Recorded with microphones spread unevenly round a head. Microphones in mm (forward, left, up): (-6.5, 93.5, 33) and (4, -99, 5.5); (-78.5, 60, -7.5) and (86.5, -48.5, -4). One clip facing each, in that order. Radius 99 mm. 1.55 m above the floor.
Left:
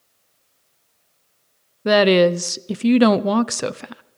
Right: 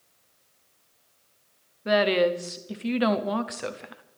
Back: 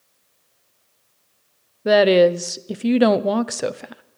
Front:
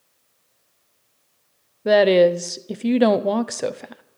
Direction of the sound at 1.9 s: 60° left.